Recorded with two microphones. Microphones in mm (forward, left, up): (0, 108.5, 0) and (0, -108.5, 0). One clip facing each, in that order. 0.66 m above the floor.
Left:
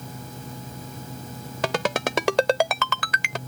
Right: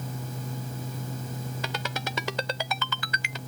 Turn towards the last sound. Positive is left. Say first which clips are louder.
# left 13 dB
turn(degrees=70)  # may be behind; listen again after turning